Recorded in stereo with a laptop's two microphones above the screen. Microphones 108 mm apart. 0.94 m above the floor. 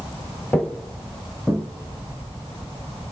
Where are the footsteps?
15° left (ahead or behind), 1.2 m; by 1.6 s centre (ahead or behind), 2 m.